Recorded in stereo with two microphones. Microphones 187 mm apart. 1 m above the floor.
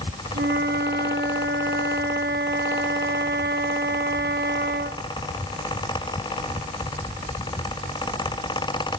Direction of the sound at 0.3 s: 60° right (ahead or behind).